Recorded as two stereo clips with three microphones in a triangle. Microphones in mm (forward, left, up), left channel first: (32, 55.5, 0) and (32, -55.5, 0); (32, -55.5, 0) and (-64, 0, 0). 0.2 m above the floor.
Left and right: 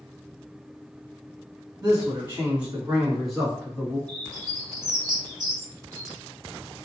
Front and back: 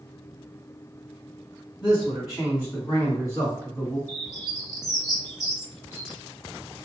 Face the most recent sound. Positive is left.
turn(degrees=-75)